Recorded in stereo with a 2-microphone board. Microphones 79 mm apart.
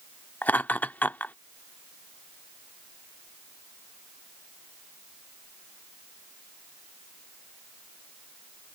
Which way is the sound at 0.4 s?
25° left (ahead or behind).